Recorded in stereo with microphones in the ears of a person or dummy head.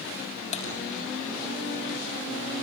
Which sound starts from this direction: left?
Typing on a keyboard, at 0.5 s.